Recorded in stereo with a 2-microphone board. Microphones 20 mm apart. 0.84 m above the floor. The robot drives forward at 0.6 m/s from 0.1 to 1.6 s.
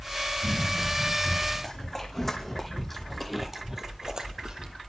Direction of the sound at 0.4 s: 25° left (ahead or behind).